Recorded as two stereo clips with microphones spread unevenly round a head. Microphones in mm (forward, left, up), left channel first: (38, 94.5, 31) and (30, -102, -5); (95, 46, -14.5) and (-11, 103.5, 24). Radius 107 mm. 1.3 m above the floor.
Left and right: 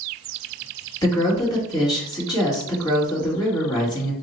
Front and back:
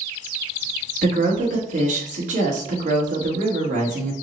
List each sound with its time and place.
1.0 s a woman speaking: 160° left, 1.3 m